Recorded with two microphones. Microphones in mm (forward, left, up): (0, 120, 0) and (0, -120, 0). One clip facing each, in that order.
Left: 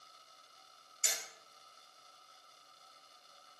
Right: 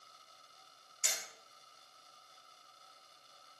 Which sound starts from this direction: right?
Hammering, at 1.0 s.